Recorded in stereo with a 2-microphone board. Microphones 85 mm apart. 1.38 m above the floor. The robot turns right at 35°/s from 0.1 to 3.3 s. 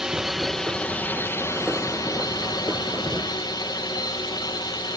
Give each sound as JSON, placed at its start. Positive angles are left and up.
{"t": 0.0, "sound": "a drone", "azimuth_deg": -10}